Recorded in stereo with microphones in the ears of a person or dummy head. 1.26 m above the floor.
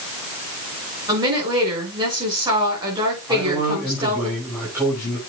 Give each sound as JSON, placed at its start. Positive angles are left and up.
{"t": 1.1, "sound": "a woman speaking", "side_deg": -30, "distance_m": 6.0}
{"t": 3.3, "sound": "a man speaking", "side_deg": -20, "distance_m": 5.5}